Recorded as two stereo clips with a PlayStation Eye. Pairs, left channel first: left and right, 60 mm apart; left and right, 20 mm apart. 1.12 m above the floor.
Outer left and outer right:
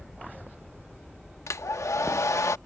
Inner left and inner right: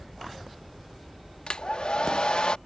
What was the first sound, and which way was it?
A hair dryer, 55° left (ahead or behind).